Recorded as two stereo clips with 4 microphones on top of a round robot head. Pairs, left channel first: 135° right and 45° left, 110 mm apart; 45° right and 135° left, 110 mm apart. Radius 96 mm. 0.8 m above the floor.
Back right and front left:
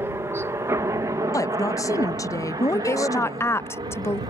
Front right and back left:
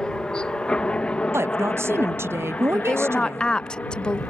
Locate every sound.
0.0 s a helicopter: 30° left
1.3 s a woman speaking: 170° right
2.7 s a woman speaking: 115° right